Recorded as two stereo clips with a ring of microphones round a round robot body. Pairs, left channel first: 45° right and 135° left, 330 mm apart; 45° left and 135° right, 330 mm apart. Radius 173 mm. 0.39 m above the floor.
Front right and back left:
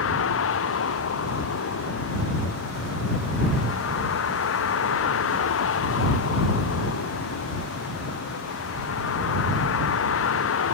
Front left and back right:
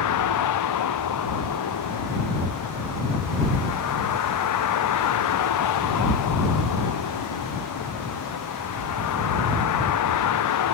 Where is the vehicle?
5° left.